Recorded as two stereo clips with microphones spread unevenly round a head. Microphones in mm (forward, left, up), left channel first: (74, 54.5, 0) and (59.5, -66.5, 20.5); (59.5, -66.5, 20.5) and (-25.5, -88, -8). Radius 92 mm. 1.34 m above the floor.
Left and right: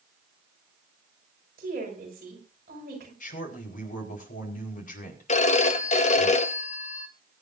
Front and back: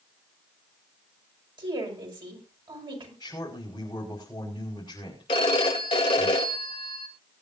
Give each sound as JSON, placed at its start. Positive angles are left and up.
{"t": 1.6, "sound": "a woman speaking", "azimuth_deg": -140, "distance_m": 6.0}
{"t": 3.2, "sound": "a man speaking", "azimuth_deg": 85, "distance_m": 5.0}
{"t": 5.3, "sound": "a phone ringing", "azimuth_deg": 55, "distance_m": 1.2}